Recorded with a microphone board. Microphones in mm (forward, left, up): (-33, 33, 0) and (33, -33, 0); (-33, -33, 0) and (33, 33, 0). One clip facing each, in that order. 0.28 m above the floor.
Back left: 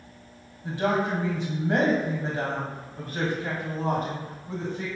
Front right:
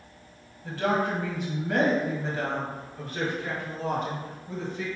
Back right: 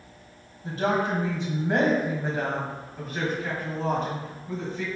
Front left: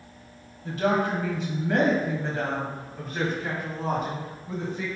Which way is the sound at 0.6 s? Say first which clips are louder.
Back left 1 dB, front left 1 dB; 165° right.